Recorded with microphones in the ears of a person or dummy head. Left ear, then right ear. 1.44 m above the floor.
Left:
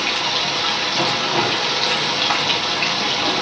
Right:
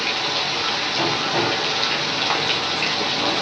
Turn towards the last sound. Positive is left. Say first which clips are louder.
# left 2 dB
turn(degrees=5)  # may be behind; listen again after turning